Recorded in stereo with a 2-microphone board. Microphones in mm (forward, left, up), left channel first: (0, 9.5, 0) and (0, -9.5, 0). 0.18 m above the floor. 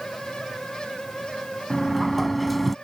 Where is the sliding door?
5° left (ahead or behind).